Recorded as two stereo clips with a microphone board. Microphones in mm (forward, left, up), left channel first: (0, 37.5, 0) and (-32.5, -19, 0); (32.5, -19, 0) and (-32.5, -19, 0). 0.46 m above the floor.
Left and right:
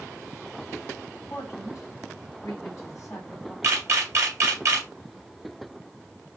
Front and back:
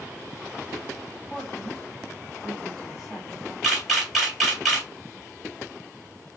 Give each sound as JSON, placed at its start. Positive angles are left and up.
{"t": 1.2, "sound": "a man speaking", "azimuth_deg": 95, "distance_m": 2.5}
{"t": 3.6, "sound": "a camera shutter", "azimuth_deg": -95, "distance_m": 2.0}